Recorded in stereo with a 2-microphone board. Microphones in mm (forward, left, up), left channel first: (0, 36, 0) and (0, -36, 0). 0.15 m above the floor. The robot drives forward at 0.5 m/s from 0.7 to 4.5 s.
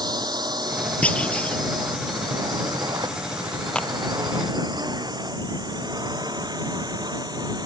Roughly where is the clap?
Centre.